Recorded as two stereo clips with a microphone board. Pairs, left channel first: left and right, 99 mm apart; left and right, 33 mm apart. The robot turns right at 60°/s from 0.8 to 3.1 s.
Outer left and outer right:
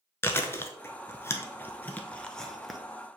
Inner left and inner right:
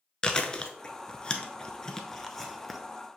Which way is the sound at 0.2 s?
25° left (ahead or behind).